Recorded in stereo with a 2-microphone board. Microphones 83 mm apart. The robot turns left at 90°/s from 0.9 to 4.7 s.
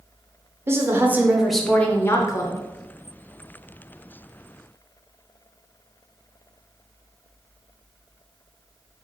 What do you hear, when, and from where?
0.7 s a woman speaking: 125° right, 0.7 m; by 2.6 s 85° left, 0.7 m